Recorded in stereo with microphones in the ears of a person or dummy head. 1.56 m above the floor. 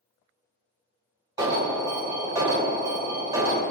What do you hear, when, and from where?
1.4 s an alarm: 15° right (ahead or behind), 1.2 m